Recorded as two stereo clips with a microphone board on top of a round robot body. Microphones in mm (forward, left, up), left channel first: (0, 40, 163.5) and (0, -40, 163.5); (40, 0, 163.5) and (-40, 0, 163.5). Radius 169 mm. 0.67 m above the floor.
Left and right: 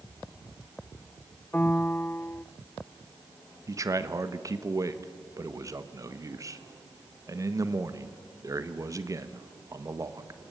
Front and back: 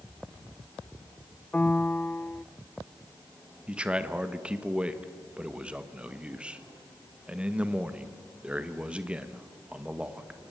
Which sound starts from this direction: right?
A man speaking, at 3.7 s.